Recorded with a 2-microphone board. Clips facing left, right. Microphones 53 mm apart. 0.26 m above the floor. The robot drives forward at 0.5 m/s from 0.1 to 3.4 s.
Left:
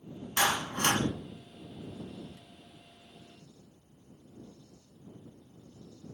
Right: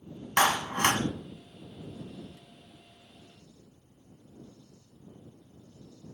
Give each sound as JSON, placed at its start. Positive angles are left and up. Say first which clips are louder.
{"t": 0.4, "sound": "a clap", "louder": "right 4 dB", "side_deg": -50, "distance_m": 1.3}